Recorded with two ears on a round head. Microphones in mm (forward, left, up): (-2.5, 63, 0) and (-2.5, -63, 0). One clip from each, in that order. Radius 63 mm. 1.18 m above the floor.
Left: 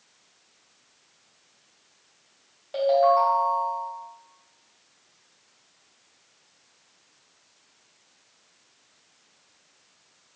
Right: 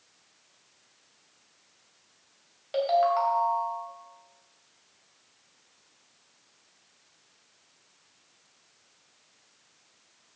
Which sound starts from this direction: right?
A ringtone, at 2.7 s.